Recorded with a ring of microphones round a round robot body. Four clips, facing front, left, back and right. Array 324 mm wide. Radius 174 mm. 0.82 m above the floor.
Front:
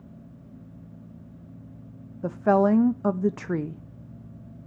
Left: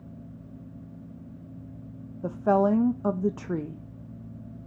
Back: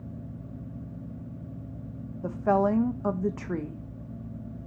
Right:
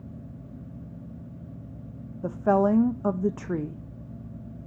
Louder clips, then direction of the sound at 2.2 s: Even, front 4 dB; 5° right.